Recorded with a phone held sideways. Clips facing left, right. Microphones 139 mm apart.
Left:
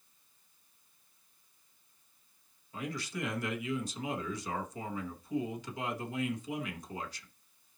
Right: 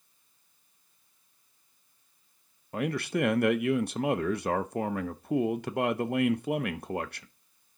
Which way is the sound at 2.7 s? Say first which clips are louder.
Right 10 dB; 60° right (ahead or behind).